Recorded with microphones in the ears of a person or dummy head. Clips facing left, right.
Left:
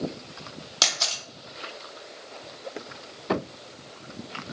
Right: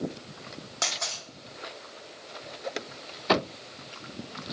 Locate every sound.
0.8 s a camera shutter: 55° left (ahead or behind), 1.0 m